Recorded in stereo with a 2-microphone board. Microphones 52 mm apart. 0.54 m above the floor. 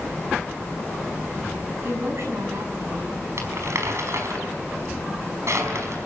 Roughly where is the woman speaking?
Right.